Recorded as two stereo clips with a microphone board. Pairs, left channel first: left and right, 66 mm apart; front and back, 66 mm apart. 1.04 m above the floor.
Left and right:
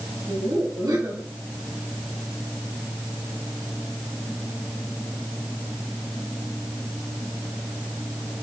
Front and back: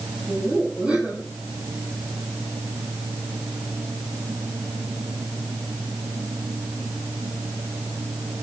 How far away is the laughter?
About 8.5 m.